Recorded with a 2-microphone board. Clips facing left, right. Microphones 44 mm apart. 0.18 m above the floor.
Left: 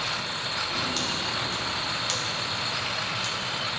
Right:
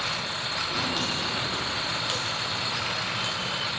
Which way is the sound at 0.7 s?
10° right (ahead or behind).